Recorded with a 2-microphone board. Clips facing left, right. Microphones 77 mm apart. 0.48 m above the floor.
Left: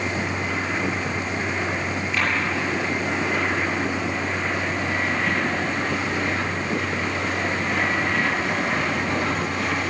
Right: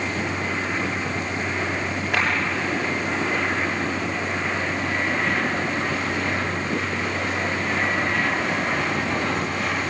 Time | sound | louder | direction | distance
2.1 | a clap | right 2 dB | 65° right (ahead or behind) | 9 m